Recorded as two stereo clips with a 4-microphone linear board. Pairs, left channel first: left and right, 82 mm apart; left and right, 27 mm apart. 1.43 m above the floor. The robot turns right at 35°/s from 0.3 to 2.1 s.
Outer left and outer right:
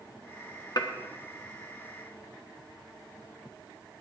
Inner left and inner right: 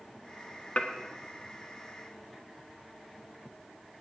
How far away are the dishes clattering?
About 1.3 m.